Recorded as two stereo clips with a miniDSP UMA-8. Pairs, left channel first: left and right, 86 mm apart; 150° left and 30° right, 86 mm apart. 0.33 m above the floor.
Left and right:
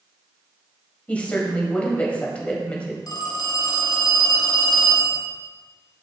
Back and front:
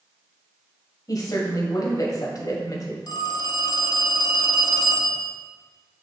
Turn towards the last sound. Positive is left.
turn(degrees=125)